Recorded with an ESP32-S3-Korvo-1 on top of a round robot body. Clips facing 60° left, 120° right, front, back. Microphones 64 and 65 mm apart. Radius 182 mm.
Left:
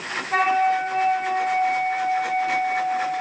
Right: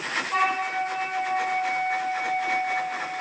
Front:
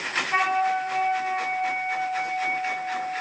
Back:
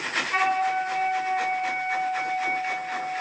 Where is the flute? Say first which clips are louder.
Left 6 dB, front 1 dB; 65° left, 2.5 m.